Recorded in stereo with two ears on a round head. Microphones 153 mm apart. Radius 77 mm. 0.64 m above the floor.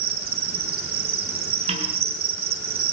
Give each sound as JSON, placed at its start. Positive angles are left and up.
{"t": 0.0, "sound": "an insect", "side_deg": -65, "distance_m": 5.0}
{"t": 1.7, "sound": "a snare drum", "side_deg": -40, "distance_m": 7.5}